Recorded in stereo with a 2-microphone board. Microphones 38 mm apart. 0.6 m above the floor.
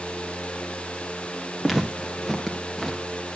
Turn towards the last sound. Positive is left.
turn(degrees=10)  # may be behind; listen again after turning